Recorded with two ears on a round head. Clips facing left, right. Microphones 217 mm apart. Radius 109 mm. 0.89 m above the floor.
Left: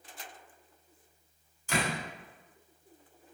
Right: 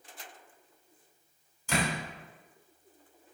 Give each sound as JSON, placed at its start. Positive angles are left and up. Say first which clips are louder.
{"t": 1.7, "sound": "a door slam", "louder": "right 1 dB", "side_deg": -65, "distance_m": 3.0}